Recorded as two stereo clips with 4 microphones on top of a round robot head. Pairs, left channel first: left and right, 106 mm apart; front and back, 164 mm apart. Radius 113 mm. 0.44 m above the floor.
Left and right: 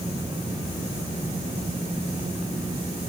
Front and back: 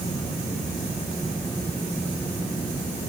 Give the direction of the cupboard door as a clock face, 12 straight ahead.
I don't hear a cupboard door.